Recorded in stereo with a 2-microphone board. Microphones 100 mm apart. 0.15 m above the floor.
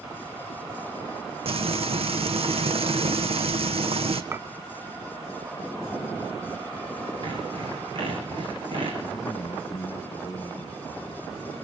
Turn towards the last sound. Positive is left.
turn(degrees=55)  # may be behind; listen again after turning